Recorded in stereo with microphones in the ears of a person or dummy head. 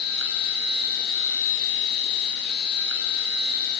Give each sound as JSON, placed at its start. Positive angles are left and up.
{"t": 0.0, "sound": "a machine running", "side_deg": 65, "distance_m": 4.5}